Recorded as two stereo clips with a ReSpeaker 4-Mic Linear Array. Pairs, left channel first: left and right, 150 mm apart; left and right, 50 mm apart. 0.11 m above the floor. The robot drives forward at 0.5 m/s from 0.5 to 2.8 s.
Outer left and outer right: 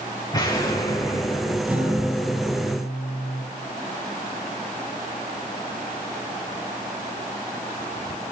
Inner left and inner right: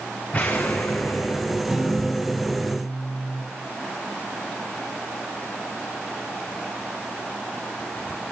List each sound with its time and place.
0.3 s an explosion: 25° left (ahead or behind), 3.5 m; by 1.6 s 20° left (ahead or behind), 4 m
1.7 s a guitar: 10° right (ahead or behind), 2 m